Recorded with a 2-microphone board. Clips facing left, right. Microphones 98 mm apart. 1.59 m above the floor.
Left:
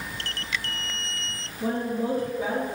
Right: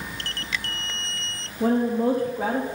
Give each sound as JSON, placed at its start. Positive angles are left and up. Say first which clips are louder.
{"t": 1.6, "sound": "a woman speaking", "louder": "right 6 dB", "side_deg": -85, "distance_m": 1.0}